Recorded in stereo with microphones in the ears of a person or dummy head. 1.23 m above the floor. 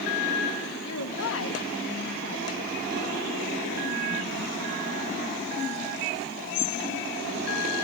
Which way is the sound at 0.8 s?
85° left.